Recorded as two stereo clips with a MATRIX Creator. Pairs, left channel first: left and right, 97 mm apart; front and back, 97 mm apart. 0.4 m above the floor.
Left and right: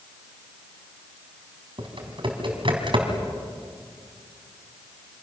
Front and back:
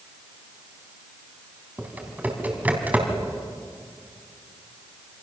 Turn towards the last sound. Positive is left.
turn(degrees=-110)